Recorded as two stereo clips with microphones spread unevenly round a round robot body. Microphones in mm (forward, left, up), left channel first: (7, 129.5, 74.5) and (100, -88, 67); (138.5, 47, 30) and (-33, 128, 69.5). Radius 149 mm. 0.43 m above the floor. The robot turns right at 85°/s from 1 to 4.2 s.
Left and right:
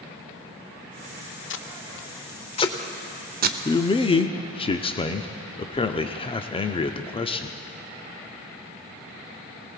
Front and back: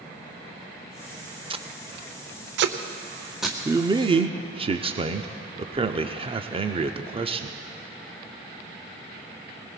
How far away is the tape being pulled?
About 0.7 m.